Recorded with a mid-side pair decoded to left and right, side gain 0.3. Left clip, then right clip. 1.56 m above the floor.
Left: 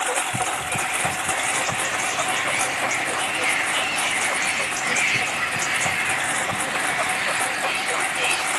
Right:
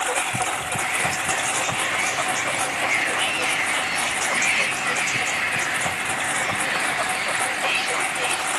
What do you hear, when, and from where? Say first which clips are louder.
0.0 s a lawn mower: even; 10° left